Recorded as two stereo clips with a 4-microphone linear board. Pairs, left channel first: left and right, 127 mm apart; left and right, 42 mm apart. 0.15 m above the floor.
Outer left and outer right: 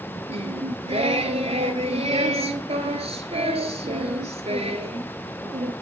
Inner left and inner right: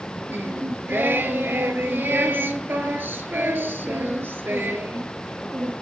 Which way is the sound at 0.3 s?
55° right (ahead or behind).